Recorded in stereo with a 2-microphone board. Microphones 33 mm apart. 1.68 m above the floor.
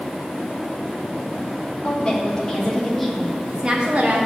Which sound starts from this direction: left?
A woman speaking, at 1.8 s.